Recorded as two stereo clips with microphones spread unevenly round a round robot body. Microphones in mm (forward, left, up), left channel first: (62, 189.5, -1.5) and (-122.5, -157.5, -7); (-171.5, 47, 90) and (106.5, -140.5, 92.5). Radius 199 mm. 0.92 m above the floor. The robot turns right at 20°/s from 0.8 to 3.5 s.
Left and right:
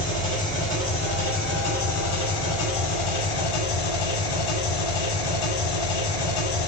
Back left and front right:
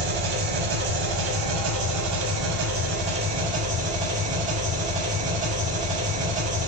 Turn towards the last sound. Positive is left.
turn(degrees=35)